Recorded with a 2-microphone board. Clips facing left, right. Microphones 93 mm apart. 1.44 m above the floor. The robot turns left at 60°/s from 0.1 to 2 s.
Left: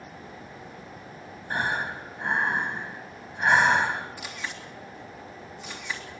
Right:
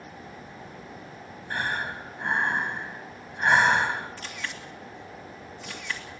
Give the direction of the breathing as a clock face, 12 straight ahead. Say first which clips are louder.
Left 2 dB; 11 o'clock.